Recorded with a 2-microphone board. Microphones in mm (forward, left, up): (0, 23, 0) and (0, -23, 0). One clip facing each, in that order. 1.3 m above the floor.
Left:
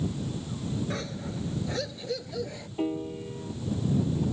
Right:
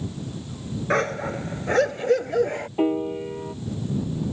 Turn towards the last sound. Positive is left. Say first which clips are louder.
# right 7 dB
turn(degrees=-35)  # may be behind; listen again after turning